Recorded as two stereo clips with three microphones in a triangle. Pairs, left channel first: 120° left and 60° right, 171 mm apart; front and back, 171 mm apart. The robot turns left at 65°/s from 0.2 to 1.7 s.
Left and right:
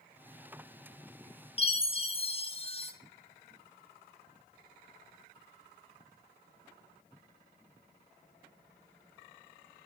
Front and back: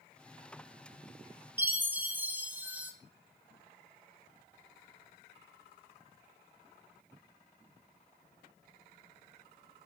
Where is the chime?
115° left, 0.8 m; by 2.9 s 105° left, 0.8 m.